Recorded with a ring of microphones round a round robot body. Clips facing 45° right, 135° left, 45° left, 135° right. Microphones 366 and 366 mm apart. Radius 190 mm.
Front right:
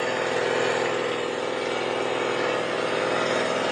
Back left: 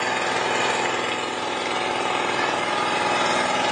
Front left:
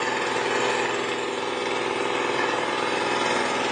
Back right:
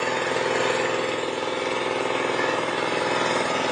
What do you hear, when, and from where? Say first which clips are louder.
0.0 s an engine running: front right 2 dB, back right 2 dB; 130° left, 0.8 m